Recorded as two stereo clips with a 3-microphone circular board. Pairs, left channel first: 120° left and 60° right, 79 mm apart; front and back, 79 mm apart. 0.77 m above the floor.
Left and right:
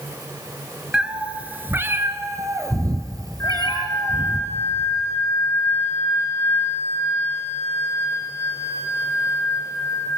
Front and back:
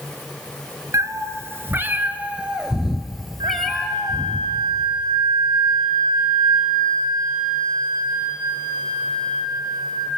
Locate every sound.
0.9 s a cat meowing: 140° right, 1.7 m; by 4.4 s 80° right, 3 m
3.4 s a flute: 170° left, 4 m